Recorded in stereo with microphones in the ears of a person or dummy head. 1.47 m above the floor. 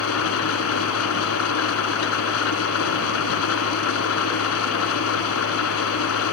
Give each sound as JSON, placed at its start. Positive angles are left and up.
{"t": 0.0, "sound": "an engine running", "side_deg": 75}